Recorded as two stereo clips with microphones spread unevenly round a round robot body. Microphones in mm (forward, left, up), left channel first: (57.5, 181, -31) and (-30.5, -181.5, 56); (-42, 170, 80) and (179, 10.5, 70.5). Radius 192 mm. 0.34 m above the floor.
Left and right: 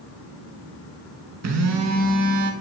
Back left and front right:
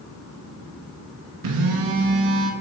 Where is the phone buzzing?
55° right, 0.7 m.